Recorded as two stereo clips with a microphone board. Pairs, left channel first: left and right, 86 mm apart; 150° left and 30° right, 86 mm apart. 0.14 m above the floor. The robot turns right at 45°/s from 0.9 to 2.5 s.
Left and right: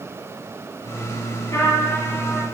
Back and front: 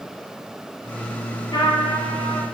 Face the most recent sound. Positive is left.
turn(degrees=175)